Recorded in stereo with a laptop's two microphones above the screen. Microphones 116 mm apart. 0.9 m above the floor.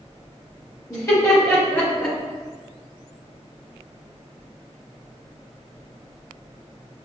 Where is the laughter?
25° left (ahead or behind), 1.8 m; by 2.2 s 5° left (ahead or behind), 1.5 m.